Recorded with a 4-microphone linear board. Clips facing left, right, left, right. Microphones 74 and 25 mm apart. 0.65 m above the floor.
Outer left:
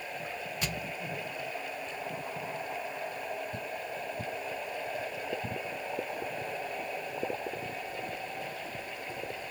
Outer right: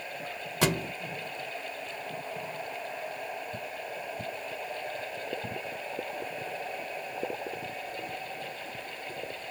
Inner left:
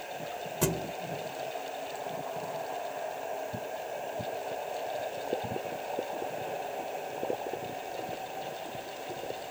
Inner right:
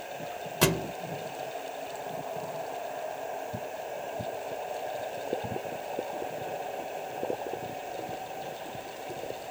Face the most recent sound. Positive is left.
turn(degrees=-80)